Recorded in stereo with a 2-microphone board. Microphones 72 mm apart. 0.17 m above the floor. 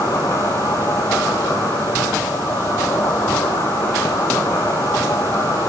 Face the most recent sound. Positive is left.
turn(degrees=40)  # may be behind; listen again after turning